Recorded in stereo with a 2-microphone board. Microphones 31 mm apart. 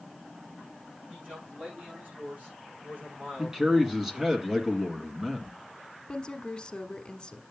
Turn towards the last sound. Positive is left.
turn(degrees=30)  # may be behind; listen again after turning